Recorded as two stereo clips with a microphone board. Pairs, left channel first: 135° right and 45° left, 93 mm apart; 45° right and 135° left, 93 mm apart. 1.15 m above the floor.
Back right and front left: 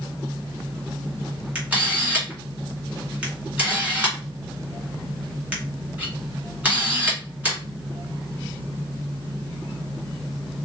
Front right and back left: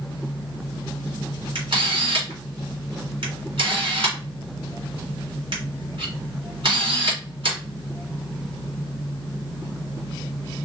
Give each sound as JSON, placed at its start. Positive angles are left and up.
{"t": 1.6, "sound": "a camera shutter", "azimuth_deg": 115, "distance_m": 2.5}